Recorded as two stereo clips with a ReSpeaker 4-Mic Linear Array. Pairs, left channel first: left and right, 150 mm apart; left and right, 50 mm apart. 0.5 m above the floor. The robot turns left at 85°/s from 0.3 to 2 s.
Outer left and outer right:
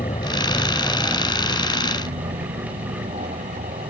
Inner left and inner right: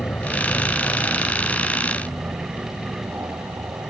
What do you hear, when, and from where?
0.0 s an aircraft: 55° left; by 3.9 s 90° right